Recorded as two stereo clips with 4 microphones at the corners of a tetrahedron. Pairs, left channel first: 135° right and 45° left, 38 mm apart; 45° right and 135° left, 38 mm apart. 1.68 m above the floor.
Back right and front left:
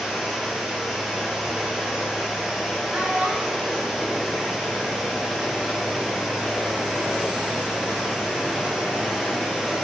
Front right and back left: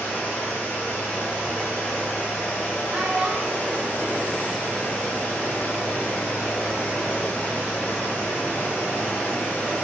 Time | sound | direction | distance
0.0 | running water | 40° right | 3.5 m
2.9 | a child speaking | 95° left | 2.0 m